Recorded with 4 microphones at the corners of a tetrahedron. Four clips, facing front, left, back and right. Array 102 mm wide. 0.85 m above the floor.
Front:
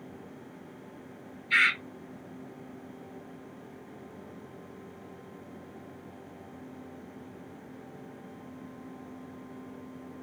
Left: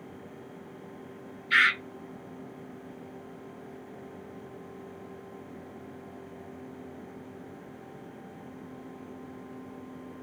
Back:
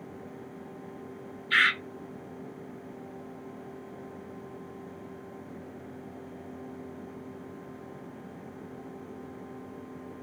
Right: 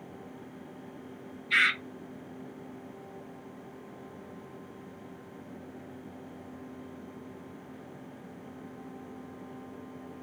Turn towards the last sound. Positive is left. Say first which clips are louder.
# left 3 dB, back 1 dB
turn(degrees=120)